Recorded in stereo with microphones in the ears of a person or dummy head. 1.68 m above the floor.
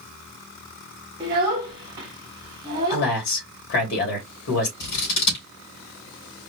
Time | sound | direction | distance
1.2 | a child speaking | 25° right (ahead or behind) | 0.8 m
2.9 | a man speaking | 55° left (ahead or behind) | 2.5 m
4.8 | scissors | 55° left (ahead or behind) | 3 m